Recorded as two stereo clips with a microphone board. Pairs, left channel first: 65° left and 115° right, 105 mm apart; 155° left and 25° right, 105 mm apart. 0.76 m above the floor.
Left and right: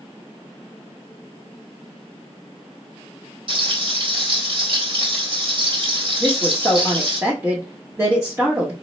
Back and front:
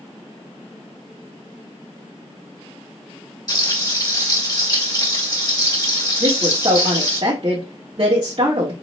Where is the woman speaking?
50° right, 1.1 m.